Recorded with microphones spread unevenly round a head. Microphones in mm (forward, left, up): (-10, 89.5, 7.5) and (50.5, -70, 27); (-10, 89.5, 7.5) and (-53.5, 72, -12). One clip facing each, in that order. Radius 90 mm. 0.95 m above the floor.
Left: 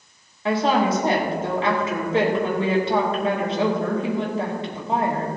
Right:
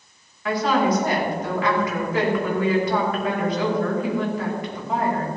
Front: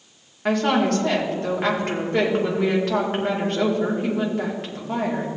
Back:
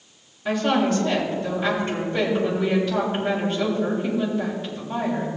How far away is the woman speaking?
About 2.5 m.